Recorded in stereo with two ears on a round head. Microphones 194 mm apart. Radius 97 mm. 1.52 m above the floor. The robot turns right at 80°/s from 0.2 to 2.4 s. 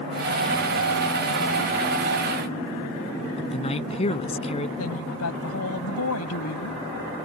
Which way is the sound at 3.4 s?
30° left (ahead or behind).